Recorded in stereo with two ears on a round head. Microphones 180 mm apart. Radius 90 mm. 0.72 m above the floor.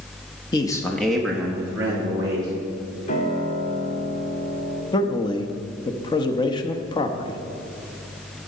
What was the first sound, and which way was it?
A man speaking, 20° left (ahead or behind).